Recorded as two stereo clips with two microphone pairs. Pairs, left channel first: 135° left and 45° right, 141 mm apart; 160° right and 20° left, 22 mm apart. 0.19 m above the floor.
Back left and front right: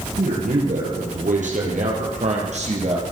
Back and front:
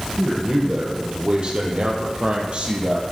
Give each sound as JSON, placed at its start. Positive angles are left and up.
{"t": 0.2, "sound": "a man speaking", "azimuth_deg": -30, "distance_m": 6.5}